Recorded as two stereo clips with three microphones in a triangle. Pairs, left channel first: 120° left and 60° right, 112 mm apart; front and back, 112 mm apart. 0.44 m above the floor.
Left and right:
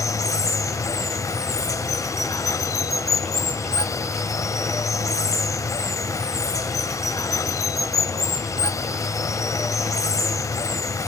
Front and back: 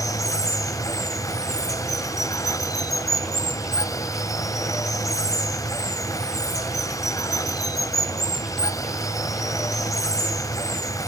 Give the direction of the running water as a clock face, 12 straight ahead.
10 o'clock.